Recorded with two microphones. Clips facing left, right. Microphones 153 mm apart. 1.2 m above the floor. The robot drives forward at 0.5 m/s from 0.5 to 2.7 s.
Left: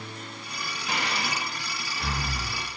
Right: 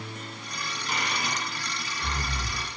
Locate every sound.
0.9 s breathing: 80° left, 1.3 m; by 2.6 s 60° left (ahead or behind), 1.6 m